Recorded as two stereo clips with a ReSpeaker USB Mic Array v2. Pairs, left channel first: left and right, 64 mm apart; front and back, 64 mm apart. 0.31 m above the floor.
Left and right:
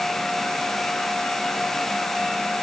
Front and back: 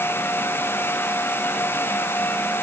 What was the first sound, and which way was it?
Only background noise.